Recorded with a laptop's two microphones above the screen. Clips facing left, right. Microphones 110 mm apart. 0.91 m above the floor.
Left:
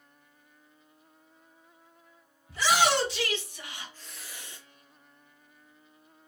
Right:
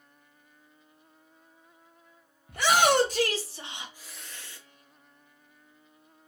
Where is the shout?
55° right (ahead or behind), 1.0 m; by 4.6 s 25° left (ahead or behind), 0.5 m.